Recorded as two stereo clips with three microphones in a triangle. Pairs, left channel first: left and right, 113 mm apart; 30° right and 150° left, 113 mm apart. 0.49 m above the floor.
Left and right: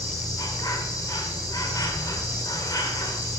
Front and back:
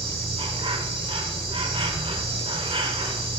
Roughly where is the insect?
Behind left.